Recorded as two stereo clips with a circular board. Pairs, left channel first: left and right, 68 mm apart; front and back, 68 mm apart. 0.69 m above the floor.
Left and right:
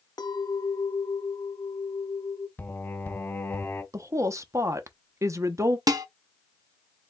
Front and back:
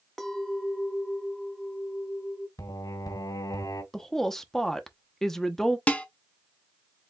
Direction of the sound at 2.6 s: 30° left.